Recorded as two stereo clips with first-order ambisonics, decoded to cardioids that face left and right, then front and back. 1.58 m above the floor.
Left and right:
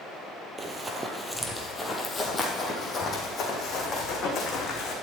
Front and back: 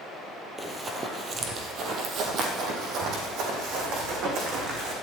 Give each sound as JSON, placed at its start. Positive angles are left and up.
{"t": 0.6, "sound": "running footsteps", "azimuth_deg": -125, "distance_m": 1.6}